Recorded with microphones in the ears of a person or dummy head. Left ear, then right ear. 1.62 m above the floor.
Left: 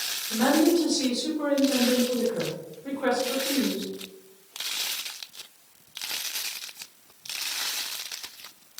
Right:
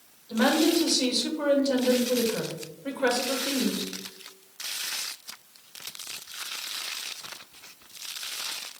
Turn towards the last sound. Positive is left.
turn(degrees=-25)  # may be behind; listen again after turning